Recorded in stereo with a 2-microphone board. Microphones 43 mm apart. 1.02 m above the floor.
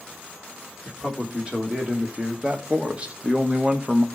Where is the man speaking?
25° right (ahead or behind), 2.5 m; by 4.0 s 35° right (ahead or behind), 1.2 m.